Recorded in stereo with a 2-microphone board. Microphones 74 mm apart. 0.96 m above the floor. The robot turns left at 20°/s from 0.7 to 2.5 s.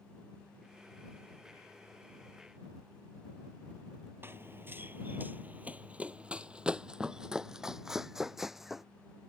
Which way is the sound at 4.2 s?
30° right (ahead or behind).